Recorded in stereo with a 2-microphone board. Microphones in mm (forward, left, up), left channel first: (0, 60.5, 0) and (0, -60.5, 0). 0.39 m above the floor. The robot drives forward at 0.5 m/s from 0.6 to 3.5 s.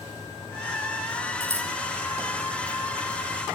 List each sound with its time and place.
1.4 s scissors: 20° right (ahead or behind), 3.5 m